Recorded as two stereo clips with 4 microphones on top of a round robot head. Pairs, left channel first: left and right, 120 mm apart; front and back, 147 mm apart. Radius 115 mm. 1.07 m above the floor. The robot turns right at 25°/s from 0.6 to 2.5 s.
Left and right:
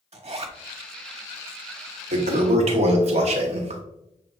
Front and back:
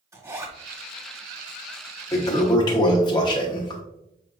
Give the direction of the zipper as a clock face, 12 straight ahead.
4 o'clock.